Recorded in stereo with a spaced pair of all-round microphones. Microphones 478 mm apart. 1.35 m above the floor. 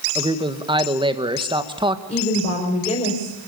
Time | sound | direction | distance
0.1 | a man speaking | 10° right (ahead or behind) | 1.6 m
2.1 | a woman speaking | 15° left (ahead or behind) | 5.5 m